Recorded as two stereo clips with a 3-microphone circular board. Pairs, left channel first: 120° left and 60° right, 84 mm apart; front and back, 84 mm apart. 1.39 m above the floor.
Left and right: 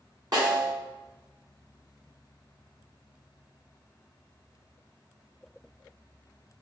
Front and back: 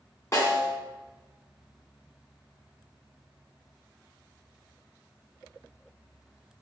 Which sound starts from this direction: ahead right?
A snare drum, at 0.3 s.